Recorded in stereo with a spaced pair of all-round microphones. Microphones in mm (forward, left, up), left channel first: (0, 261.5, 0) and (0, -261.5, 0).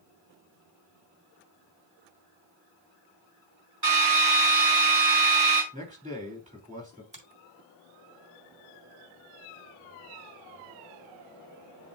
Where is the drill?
50° right (ahead or behind), 3.5 m.